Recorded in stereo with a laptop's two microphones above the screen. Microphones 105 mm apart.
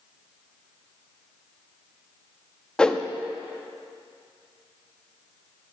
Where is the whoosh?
10° left (ahead or behind), 0.6 m.